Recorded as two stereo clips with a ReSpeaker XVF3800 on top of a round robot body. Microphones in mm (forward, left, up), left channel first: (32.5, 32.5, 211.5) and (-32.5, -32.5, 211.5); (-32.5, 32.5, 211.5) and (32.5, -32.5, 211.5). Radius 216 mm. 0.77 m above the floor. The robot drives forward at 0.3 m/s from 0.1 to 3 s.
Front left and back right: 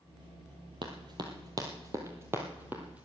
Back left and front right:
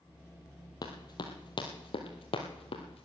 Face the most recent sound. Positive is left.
turn(degrees=145)